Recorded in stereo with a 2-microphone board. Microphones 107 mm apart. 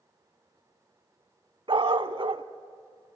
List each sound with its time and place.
1.7 s a dog barking: 55° right (ahead or behind), 0.6 m